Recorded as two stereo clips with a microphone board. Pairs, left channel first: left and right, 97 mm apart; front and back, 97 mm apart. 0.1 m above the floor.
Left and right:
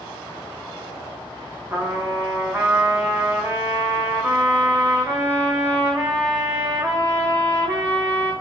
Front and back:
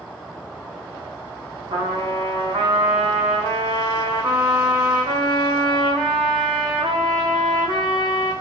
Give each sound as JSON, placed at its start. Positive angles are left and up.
{"t": 1.7, "sound": "a trumpet", "azimuth_deg": -155, "distance_m": 1.4}